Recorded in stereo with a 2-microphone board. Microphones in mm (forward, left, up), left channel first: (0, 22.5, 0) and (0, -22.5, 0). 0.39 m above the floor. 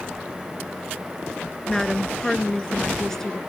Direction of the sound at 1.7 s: 10° left (ahead or behind).